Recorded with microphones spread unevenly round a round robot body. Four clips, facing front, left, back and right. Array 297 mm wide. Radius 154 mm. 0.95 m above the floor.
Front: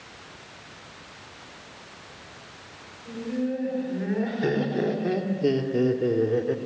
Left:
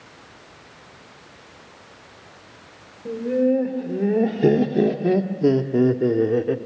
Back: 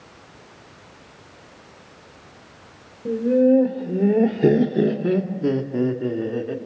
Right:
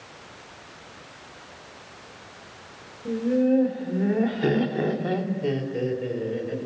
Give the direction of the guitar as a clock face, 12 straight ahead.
No guitar in this recording.